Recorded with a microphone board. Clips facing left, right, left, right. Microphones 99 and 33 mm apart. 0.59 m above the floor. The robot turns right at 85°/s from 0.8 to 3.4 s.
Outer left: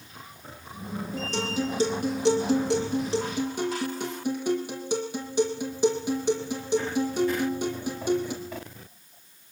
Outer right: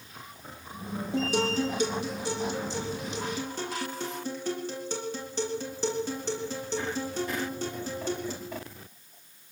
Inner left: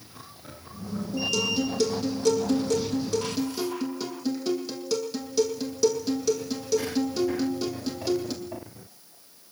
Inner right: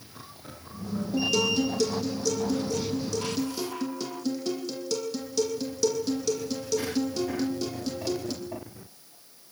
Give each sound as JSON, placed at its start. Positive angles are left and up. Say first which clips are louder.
{"t": 1.1, "sound": "a guitar", "louder": "outer right 3 dB, inner right 2 dB", "azimuth_deg": -25, "distance_m": 8.5}